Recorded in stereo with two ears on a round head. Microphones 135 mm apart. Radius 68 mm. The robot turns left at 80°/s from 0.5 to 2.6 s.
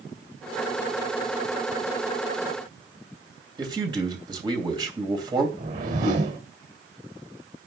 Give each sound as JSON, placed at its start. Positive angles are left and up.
{"t": 3.6, "sound": "a man speaking", "side_deg": -30, "distance_m": 2.5}
{"t": 5.6, "sound": "a whoosh", "side_deg": -60, "distance_m": 2.5}